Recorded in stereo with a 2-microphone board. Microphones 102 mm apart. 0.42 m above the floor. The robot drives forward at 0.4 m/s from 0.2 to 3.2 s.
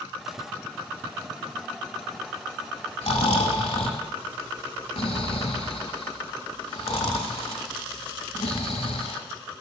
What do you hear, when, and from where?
3.0 s snoring: 85° left, 0.8 m; by 9.2 s 80° left, 0.8 m